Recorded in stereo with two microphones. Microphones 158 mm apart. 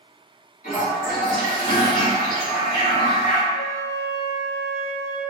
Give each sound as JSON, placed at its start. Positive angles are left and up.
{"t": 0.6, "sound": "a toilet flushing", "side_deg": 65, "distance_m": 1.4}
{"t": 3.5, "sound": "a flute", "side_deg": 25, "distance_m": 1.0}